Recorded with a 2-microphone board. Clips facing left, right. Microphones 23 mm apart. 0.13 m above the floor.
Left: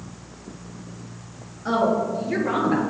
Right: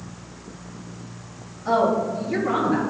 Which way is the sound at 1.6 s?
35° left (ahead or behind).